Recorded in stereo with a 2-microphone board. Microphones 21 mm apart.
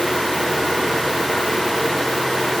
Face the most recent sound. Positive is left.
No sound to turn to.